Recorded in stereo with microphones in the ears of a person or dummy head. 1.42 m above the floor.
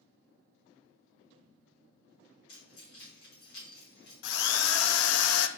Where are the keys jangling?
55° left (ahead or behind), 3.5 m.